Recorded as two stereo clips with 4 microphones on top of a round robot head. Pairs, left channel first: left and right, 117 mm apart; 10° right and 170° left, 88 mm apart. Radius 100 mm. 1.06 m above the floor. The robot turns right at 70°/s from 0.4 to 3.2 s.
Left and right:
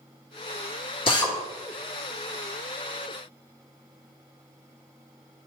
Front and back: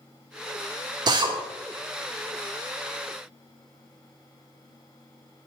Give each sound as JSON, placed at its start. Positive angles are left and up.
{"t": 1.1, "sound": "a drill", "azimuth_deg": 130, "distance_m": 1.4}